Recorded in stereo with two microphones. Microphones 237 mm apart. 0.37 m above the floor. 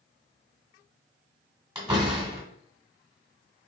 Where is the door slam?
15° right (ahead or behind), 2 m.